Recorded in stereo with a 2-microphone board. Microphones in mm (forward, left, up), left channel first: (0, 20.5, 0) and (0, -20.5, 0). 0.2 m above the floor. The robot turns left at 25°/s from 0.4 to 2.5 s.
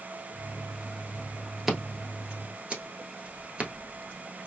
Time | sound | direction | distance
1.7 | scissors | 5° right (ahead or behind) | 1.2 m